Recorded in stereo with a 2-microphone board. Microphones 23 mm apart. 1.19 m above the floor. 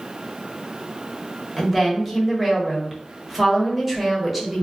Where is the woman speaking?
5° right (ahead or behind), 1.0 m.